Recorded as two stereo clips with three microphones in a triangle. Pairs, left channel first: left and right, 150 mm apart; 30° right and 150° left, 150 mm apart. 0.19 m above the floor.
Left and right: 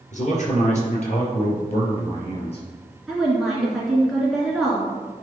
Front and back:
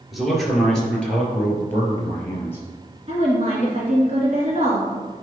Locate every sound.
0.1 s a man speaking: 60° left, 3 m; by 2.6 s 40° left, 3.5 m
3.1 s a woman speaking: straight behind, 2 m